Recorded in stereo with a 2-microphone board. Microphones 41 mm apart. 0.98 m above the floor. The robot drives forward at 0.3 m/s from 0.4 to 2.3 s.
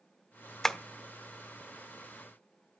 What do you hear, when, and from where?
0.6 s tapping: 10° left (ahead or behind), 0.8 m